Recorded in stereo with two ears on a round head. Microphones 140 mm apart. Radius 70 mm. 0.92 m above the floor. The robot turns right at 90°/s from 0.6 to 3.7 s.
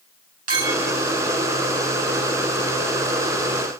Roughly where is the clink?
Right.